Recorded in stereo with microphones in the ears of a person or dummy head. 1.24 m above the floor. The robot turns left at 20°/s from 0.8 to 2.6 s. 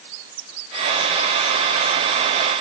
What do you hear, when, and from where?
Only background noise.